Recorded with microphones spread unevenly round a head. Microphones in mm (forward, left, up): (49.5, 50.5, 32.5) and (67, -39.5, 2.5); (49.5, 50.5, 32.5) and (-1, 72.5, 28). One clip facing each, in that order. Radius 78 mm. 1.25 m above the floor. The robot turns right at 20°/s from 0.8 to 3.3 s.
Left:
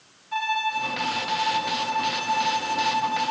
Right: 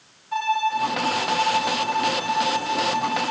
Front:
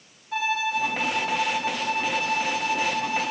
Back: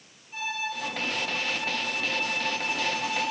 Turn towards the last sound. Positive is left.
turn(degrees=30)